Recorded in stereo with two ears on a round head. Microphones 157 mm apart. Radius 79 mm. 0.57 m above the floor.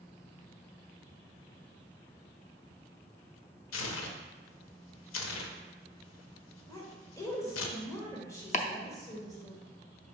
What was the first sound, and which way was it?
Tearing paper, 85° left.